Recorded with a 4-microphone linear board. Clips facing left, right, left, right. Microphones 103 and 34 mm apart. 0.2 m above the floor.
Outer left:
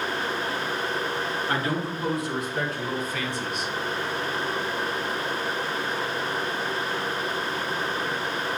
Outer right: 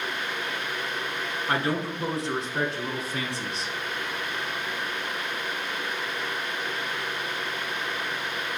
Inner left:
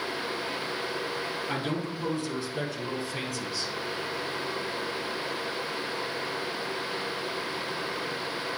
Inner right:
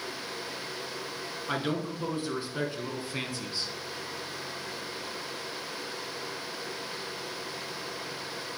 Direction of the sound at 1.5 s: 25° right (ahead or behind).